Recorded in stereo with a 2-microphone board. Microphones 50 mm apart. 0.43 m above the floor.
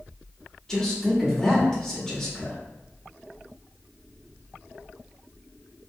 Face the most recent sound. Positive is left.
turn(degrees=10)  # may be behind; listen again after turning